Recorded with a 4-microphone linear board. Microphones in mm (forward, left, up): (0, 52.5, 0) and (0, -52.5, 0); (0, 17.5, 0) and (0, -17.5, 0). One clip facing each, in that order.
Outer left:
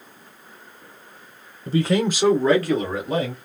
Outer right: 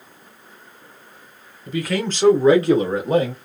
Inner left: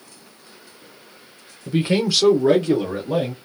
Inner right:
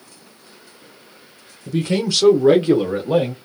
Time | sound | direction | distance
1.7 | a man speaking | 35° left (ahead or behind) | 0.9 m